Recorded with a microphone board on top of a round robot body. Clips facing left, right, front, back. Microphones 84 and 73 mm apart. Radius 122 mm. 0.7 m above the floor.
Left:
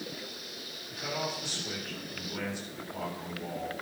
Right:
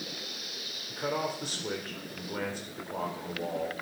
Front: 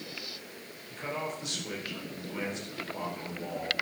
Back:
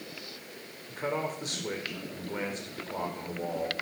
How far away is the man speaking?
About 4 m.